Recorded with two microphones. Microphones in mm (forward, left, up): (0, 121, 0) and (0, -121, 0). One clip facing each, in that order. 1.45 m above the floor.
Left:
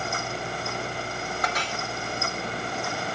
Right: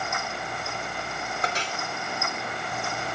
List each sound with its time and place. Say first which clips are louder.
1.4 s a clink: right 1 dB; 30° right (ahead or behind), 3.5 m